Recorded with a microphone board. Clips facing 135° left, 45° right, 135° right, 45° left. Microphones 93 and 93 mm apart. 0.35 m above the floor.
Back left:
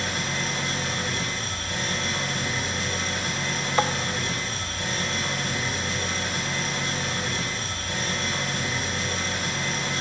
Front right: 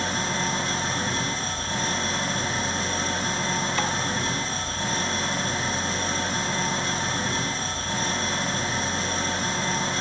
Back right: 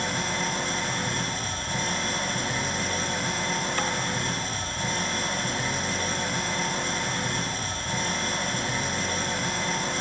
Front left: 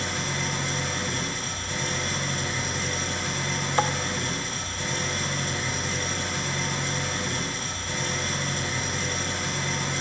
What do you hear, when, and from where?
0.0 s an engine running: 100° right, 1.8 m
3.8 s tapping: 95° left, 0.9 m